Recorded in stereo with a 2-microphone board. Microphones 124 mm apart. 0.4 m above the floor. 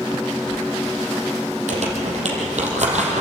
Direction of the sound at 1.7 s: 65° right (ahead or behind).